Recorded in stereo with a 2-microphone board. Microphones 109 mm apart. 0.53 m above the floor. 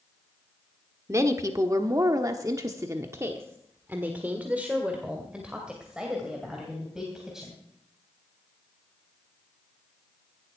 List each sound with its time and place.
1.1 s a woman speaking: 30° right (ahead or behind), 1.3 m; by 7.6 s 5° right (ahead or behind), 3.5 m